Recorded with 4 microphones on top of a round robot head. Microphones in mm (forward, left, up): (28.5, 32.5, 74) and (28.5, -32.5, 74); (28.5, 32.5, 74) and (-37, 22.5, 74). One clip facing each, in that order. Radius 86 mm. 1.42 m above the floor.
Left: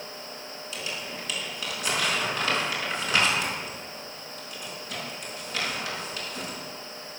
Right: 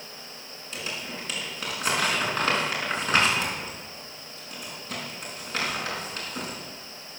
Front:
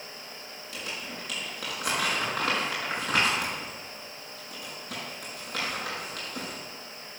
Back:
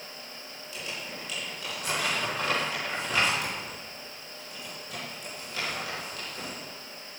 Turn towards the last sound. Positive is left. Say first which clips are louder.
# right 1 dB, front 1 dB
turn(degrees=-40)